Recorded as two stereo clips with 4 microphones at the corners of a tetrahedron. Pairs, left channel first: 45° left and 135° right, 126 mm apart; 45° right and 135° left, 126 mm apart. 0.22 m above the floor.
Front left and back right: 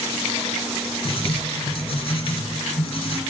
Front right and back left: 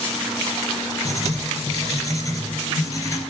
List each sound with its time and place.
1.1 s writing: 15° left, 2.5 m